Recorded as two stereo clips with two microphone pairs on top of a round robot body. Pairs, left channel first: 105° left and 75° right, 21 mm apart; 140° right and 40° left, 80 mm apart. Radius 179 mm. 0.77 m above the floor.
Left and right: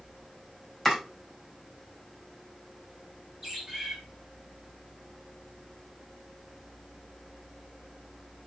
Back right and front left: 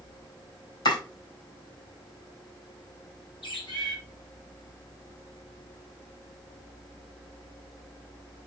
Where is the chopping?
165° right, 5 m.